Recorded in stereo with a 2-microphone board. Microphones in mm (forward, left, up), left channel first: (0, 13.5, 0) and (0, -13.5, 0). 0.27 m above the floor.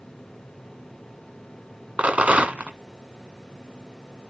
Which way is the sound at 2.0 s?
60° right (ahead or behind).